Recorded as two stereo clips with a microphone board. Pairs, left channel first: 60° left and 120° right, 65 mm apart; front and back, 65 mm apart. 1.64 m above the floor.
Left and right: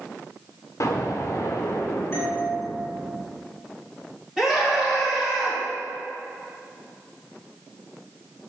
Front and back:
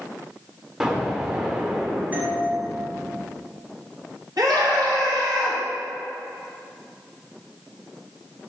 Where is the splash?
No splash in this recording.